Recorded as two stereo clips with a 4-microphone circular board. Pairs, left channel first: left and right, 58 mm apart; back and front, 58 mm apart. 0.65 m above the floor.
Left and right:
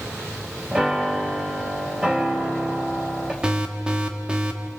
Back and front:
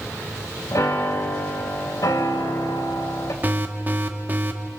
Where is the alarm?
25° right, 1.8 m.